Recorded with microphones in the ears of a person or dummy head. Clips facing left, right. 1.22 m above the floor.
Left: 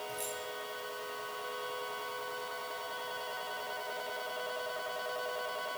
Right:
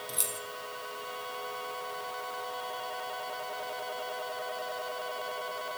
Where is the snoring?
No snoring in this recording.